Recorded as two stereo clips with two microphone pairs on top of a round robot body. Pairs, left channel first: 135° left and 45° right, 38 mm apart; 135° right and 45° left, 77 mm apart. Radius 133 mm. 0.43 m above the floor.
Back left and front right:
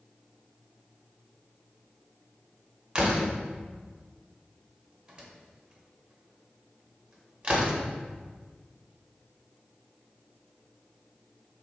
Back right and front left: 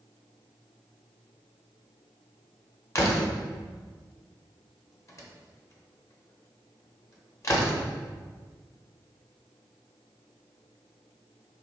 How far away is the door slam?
About 1.0 m.